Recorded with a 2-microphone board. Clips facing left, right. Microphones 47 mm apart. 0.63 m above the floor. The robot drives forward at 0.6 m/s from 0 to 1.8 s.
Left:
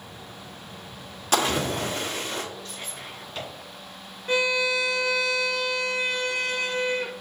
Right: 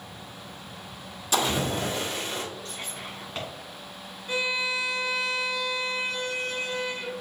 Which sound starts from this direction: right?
Whispering, at 2.6 s.